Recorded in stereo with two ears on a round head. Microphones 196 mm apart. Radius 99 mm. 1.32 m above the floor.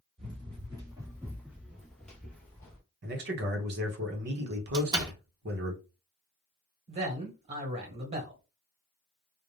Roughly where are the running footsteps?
Right.